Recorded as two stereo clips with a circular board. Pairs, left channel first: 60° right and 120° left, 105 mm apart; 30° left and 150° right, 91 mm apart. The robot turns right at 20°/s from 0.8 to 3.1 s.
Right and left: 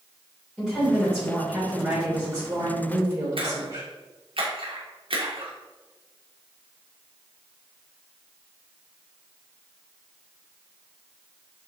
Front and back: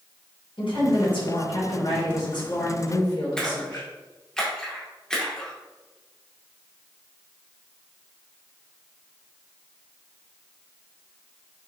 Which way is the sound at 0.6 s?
35° left.